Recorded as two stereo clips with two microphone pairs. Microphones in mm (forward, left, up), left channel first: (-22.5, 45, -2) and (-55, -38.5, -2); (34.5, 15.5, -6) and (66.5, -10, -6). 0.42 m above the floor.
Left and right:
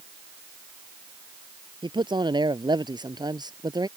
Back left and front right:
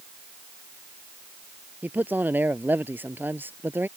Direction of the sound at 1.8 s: 80° right.